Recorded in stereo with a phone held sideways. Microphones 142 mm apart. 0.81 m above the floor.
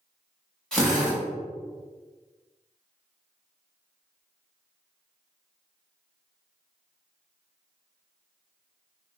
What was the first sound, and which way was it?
A drill, 5° left (ahead or behind).